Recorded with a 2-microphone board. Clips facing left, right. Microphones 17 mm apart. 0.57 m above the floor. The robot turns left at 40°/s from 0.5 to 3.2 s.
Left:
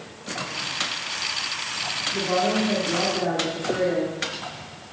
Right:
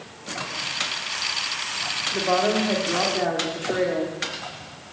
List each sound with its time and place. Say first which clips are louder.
2.1 s a woman speaking: right 2 dB; 105° right, 1.5 m; by 4.1 s 150° right, 1.5 m